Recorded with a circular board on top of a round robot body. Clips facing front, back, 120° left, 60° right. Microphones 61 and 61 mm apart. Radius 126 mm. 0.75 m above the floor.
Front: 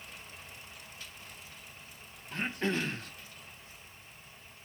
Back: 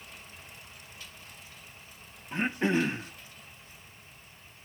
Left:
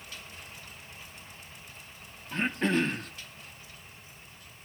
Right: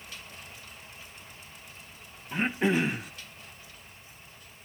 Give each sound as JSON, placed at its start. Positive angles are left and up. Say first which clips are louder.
{"t": 2.3, "sound": "throat clearing", "louder": "back 5 dB, right 1 dB", "azimuth_deg": -130, "distance_m": 0.8}